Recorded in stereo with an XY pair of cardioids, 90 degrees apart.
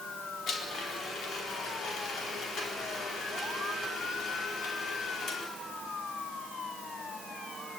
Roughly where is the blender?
Left.